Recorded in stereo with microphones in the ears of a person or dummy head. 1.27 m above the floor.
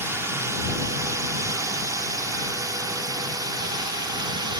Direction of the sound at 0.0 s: 15° right (ahead or behind).